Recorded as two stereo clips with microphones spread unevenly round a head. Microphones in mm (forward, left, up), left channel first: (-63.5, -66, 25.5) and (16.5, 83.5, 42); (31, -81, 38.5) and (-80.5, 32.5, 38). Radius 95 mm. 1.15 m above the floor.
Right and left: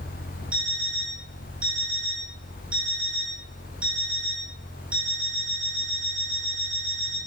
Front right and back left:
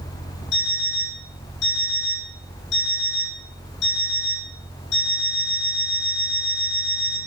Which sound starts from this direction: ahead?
An alarm clock, at 0.5 s.